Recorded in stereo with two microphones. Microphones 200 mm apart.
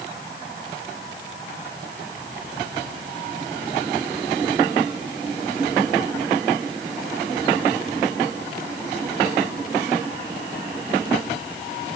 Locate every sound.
Only background noise.